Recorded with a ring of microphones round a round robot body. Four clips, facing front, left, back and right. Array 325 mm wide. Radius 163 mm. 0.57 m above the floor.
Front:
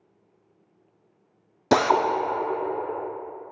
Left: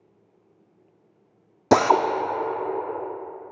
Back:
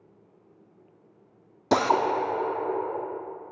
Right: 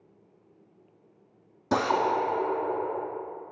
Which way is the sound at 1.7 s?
75° left.